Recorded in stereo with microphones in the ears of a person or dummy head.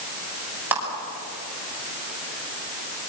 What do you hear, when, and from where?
0.7 s a clap: 5° right (ahead or behind), 6 m